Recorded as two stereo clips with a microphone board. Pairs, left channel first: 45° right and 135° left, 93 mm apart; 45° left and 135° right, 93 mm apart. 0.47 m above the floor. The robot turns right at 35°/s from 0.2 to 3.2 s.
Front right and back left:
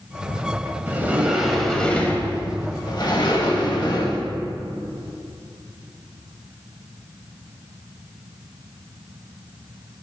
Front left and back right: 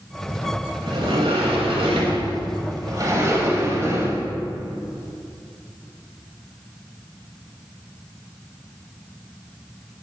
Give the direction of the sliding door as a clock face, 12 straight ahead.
5 o'clock.